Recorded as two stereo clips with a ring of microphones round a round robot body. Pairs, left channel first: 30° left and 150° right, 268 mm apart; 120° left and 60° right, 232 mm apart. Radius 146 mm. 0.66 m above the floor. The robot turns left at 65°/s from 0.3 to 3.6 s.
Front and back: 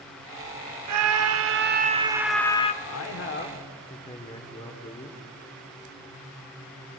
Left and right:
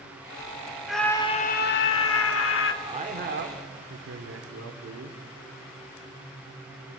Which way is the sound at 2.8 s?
10° left.